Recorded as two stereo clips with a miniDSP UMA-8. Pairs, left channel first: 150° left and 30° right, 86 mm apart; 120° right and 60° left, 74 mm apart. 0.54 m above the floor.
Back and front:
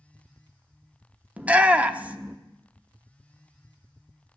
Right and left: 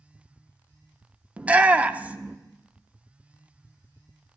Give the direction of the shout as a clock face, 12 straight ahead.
11 o'clock.